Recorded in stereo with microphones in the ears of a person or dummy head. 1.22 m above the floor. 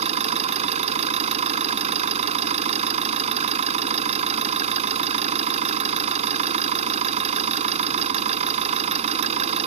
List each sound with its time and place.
0.0 s an engine running: 35° right (ahead or behind)